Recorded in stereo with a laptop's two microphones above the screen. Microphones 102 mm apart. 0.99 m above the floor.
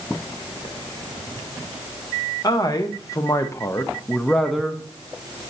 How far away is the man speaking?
About 1.2 m.